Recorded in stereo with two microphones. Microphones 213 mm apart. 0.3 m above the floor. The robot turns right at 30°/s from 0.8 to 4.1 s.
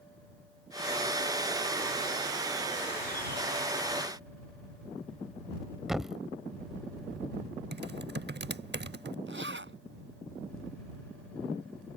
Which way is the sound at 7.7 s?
55° right (ahead or behind).